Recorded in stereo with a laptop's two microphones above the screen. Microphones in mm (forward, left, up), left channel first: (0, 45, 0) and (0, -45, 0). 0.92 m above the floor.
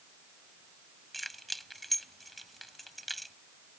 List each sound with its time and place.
1.1 s keys jangling: centre (ahead or behind)